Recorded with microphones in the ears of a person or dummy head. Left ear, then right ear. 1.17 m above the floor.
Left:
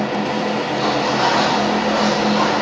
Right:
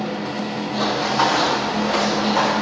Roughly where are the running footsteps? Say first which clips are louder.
Right 1 dB; right.